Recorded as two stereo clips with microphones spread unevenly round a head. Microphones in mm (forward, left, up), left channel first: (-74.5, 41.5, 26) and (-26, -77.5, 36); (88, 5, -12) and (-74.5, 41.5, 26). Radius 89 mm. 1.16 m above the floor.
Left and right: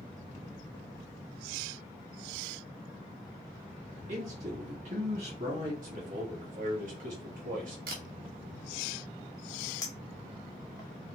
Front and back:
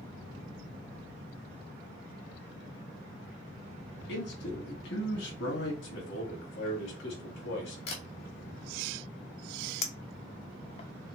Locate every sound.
4.1 s a man speaking: 20° right, 3 m
5.8 s a man speaking: 25° right, 3 m
7.9 s a camera shutter: 45° right, 1.8 m
9.8 s a clink: 45° left, 0.7 m